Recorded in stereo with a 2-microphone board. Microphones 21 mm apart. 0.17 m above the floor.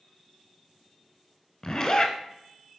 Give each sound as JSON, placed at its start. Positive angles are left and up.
{"t": 1.6, "sound": "a zipper", "side_deg": 30, "distance_m": 0.7}